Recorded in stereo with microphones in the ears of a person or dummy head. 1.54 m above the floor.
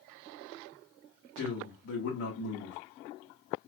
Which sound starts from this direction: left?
A man speaking, at 1.4 s.